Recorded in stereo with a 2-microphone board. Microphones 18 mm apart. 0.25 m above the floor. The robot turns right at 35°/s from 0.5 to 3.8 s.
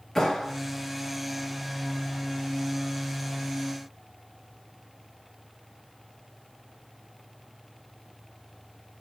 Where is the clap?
20° left (ahead or behind), 3.5 m.